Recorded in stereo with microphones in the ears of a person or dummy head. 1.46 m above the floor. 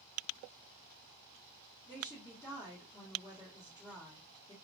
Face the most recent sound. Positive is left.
turn(degrees=20)  # may be behind; listen again after turning